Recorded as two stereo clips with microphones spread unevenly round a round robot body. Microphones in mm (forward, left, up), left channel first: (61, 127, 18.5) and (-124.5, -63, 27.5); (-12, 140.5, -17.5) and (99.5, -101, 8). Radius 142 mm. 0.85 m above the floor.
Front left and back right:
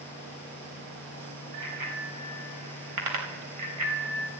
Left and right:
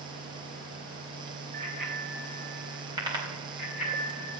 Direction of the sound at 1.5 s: 125° right.